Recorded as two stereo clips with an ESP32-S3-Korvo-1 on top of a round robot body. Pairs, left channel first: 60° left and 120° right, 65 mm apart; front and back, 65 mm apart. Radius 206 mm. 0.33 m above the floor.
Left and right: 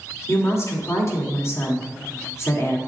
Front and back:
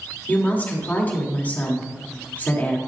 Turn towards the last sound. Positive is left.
turn(degrees=55)